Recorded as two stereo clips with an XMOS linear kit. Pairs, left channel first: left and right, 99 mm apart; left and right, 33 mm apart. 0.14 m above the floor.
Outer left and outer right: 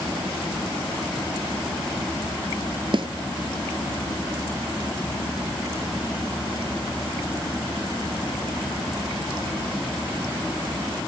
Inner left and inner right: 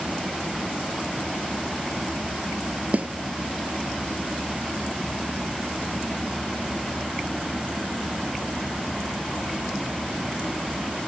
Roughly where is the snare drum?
Right.